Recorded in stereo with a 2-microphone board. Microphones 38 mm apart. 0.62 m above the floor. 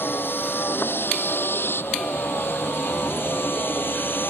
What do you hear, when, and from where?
0.0 s a vehicle: 75° left (ahead or behind); by 4.3 s 65° left (ahead or behind)